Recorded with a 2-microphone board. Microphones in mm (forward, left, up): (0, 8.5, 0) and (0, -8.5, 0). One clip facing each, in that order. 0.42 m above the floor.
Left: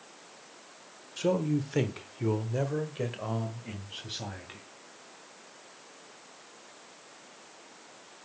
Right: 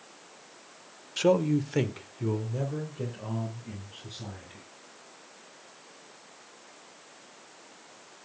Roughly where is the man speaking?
Right.